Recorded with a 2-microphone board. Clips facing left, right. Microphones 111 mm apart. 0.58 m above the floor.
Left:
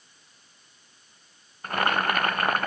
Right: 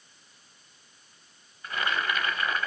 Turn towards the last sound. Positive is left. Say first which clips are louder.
# left 5 dB
turn(degrees=55)  # may be behind; listen again after turning